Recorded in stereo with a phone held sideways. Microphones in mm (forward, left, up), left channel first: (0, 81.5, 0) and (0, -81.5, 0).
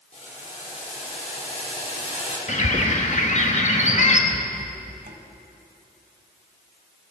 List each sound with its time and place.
0.1 s boiling: 45° left (ahead or behind), 3.5 m
2.5 s a bird: 45° left (ahead or behind), 1.3 m
4.3 s a rattle: 60° right (ahead or behind), 1.9 m